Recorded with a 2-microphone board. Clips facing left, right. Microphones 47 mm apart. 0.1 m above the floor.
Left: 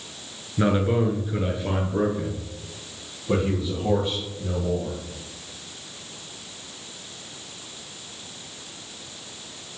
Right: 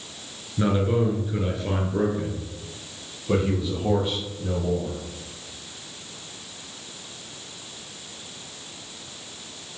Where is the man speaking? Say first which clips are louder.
Left 1 dB; 25° left (ahead or behind), 1.1 m; by 5.0 s 15° right (ahead or behind), 3.5 m.